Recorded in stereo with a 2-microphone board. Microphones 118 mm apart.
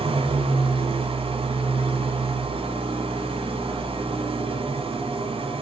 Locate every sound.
0.0 s an engine running: 55° right (ahead or behind), 2.5 m